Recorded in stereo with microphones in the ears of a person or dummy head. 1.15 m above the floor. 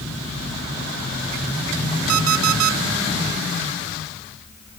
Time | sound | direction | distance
2.1 | an alarm clock | 80° right | 1.2 m